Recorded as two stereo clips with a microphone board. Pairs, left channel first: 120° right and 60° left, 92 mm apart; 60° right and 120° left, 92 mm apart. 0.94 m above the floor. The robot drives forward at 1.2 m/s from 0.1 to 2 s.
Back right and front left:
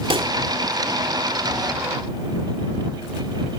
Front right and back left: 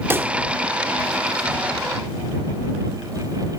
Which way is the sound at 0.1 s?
55° left.